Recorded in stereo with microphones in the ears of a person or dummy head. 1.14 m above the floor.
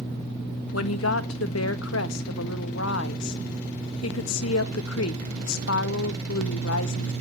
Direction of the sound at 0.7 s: 75° left (ahead or behind).